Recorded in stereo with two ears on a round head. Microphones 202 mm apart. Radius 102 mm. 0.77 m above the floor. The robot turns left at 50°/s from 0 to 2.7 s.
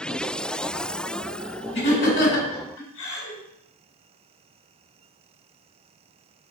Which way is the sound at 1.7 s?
45° left (ahead or behind).